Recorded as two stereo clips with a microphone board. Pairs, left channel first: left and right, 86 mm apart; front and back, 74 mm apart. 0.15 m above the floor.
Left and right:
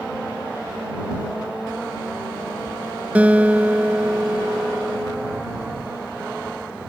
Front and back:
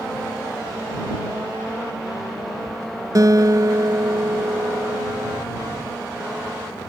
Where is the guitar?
160° right.